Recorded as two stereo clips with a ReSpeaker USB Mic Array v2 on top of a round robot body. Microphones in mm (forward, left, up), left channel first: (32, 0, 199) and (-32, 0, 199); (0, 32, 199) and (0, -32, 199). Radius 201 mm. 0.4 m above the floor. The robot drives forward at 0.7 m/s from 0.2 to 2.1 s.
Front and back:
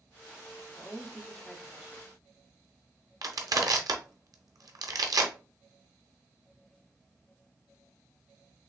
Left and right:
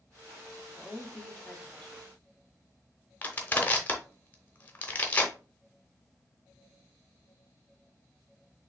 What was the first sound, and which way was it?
A woman speaking, 25° left.